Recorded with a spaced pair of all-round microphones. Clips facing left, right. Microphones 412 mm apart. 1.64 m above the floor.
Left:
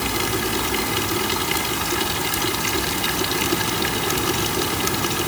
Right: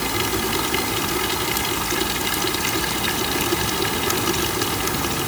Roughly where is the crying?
No crying in this recording.